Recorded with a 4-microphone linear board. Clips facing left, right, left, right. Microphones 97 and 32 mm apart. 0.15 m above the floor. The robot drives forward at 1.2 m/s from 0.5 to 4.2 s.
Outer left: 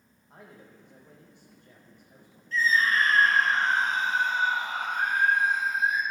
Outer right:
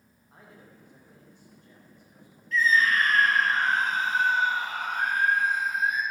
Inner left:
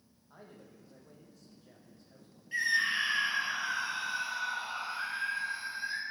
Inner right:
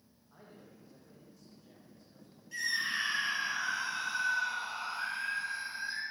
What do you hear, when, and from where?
0.3 s a man speaking: 75° left (ahead or behind), 6.5 m; by 2.4 s 65° left (ahead or behind), 7.5 m
2.5 s a scream: 35° left (ahead or behind), 3.5 m; by 6.0 s 20° left (ahead or behind), 5.5 m